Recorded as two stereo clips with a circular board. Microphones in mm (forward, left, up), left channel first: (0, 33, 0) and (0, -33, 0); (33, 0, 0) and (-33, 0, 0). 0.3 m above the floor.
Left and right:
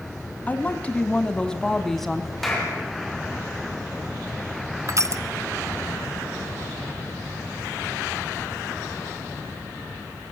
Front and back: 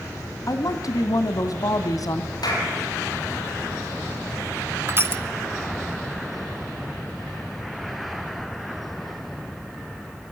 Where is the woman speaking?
25° left, 2.5 m; by 2.3 s straight ahead, 1.9 m.